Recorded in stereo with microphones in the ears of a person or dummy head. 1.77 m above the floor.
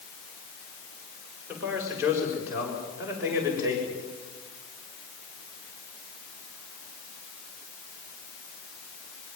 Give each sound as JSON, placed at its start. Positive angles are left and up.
{"t": 1.5, "sound": "a man speaking", "side_deg": -15, "distance_m": 6.5}